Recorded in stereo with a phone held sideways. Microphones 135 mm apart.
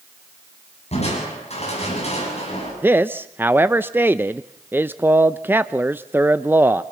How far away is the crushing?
About 9 m.